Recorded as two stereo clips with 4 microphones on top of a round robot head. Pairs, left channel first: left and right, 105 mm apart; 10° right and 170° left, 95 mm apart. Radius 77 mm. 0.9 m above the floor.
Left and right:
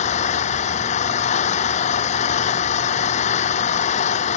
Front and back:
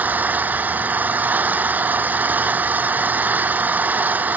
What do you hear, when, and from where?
0.0 s an engine running: 100° left